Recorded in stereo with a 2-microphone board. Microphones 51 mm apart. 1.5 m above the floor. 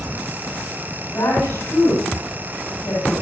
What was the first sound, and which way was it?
A woman speaking, 85° left.